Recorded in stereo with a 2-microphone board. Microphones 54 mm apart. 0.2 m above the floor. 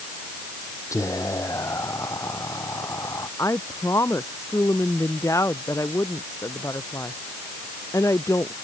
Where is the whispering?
75° left (ahead or behind).